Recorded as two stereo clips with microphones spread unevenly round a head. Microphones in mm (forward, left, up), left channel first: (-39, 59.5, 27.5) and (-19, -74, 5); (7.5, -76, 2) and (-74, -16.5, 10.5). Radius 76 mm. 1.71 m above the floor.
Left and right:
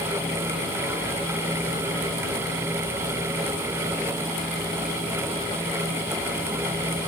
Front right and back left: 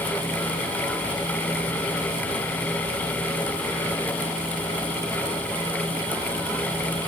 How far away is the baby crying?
No baby crying in this recording.